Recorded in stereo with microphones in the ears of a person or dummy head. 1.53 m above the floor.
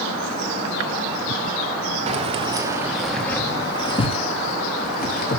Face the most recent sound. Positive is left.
turn(degrees=50)  # may be behind; listen again after turning